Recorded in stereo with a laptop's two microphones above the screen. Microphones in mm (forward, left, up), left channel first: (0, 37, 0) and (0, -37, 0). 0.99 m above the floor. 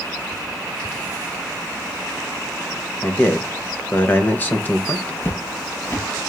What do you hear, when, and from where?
3.0 s a man speaking: 25° left (ahead or behind), 0.9 m
5.2 s footsteps: 30° left (ahead or behind), 1.1 m